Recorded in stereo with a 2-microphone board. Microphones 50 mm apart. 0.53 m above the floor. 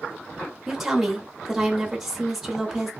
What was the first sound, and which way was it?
A woman speaking, 5° right (ahead or behind).